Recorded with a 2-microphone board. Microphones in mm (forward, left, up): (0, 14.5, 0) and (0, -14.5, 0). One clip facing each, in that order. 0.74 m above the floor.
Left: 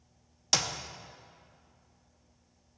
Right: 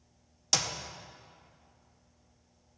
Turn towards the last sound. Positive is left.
turn(degrees=10)  # may be behind; listen again after turning